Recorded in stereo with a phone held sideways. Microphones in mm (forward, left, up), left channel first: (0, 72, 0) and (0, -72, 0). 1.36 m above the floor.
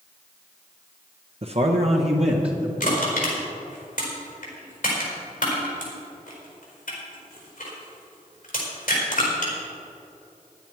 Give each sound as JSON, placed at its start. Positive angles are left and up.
{"t": 1.4, "sound": "a man speaking", "side_deg": -45, "distance_m": 0.7}
{"t": 2.8, "sound": "crushing", "side_deg": 70, "distance_m": 4.5}